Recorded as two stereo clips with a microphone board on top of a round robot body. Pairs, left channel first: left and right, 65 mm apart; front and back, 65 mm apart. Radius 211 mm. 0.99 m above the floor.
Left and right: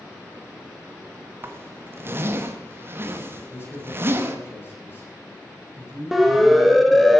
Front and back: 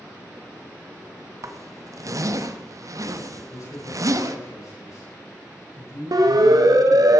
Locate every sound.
1.4 s a zipper: 145° right, 1.7 m
3.5 s a man speaking: 35° left, 8.5 m
6.1 s a siren: straight behind, 3 m; by 7.2 s 175° left, 2 m